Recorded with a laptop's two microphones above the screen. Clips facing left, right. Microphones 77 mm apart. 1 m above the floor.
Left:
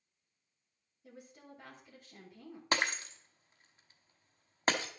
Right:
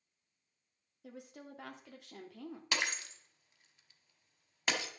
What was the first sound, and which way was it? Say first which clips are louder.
A woman speaking: right 4 dB; 80° right.